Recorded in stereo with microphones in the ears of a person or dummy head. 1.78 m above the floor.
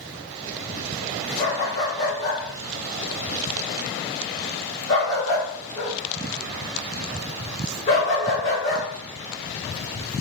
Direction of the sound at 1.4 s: 45° left (ahead or behind).